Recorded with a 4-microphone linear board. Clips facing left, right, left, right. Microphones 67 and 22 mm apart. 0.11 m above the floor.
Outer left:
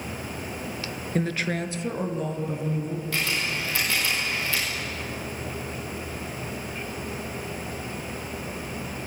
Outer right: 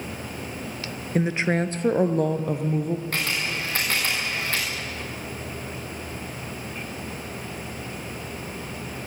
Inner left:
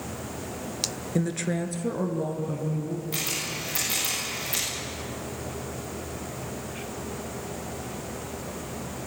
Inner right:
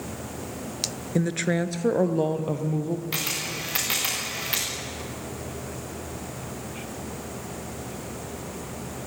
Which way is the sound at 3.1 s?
45° right (ahead or behind).